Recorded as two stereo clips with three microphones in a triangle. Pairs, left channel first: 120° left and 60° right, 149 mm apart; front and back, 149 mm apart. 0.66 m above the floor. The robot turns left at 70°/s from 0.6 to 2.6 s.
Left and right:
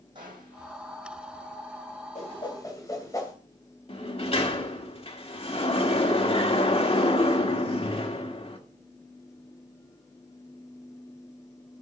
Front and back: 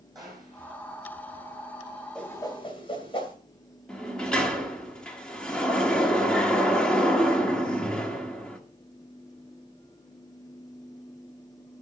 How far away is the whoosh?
About 2.5 m.